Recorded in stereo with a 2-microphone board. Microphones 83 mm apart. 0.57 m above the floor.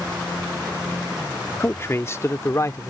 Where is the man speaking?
30° left (ahead or behind); by 2.9 s 40° left (ahead or behind).